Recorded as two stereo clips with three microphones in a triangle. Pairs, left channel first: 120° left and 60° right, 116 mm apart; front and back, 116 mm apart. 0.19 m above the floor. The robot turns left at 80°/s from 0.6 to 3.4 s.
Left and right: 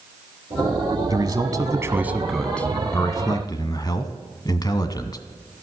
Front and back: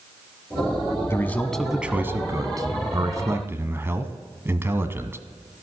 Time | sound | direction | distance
1.1 | a man speaking | 45° right | 1.2 m